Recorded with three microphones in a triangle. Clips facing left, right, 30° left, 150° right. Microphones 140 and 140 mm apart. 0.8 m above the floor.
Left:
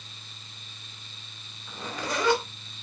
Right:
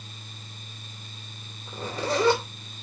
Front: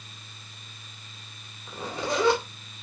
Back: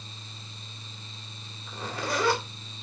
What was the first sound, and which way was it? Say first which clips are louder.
A zipper: right 5 dB, front 2 dB; 35° right.